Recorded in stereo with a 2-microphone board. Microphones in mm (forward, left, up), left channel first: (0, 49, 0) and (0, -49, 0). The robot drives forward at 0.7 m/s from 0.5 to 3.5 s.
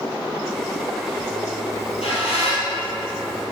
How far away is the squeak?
About 3 m.